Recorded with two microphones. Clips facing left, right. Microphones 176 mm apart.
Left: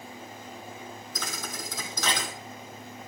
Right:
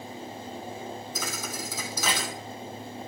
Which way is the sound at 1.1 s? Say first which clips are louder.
Right 3 dB; 10° right (ahead or behind).